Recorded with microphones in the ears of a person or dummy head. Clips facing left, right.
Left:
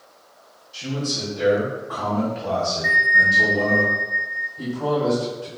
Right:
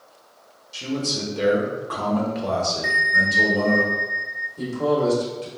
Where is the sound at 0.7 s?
55° right (ahead or behind), 1.1 m.